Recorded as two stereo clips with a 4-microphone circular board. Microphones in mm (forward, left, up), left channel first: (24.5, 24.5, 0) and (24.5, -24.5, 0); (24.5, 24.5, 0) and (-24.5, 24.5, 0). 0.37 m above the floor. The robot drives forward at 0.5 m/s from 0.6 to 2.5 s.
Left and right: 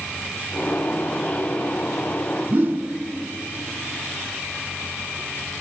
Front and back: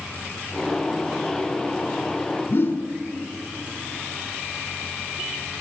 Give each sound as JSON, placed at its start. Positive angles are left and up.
{"t": 2.5, "sound": "a whoosh", "azimuth_deg": -40, "distance_m": 1.0}